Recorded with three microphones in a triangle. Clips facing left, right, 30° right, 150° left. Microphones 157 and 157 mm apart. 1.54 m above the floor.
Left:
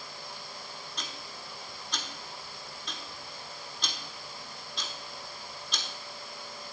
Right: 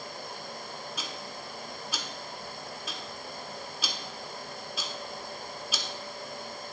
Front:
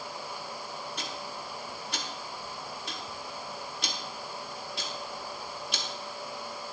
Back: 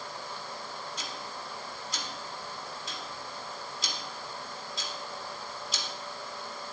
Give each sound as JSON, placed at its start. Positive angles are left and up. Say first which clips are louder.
{"t": 1.0, "sound": "ticking", "louder": "right 4 dB, front 2 dB", "azimuth_deg": -5, "distance_m": 1.2}